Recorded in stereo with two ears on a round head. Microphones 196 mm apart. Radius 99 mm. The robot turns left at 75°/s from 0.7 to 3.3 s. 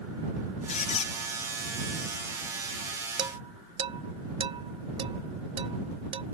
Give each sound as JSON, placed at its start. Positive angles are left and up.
{"t": 0.7, "sound": "a squeak", "azimuth_deg": 95}
{"t": 3.2, "sound": "dishes clattering", "side_deg": -20}